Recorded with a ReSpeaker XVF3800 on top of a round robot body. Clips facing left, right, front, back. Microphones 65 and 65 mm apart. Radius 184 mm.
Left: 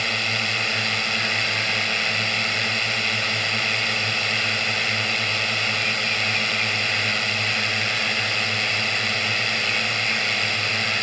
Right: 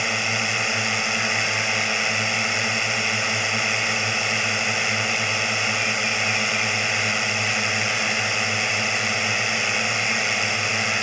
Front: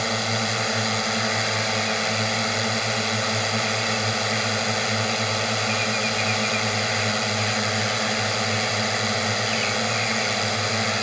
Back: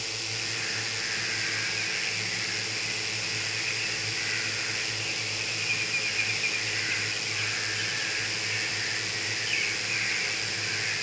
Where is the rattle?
No rattle in this recording.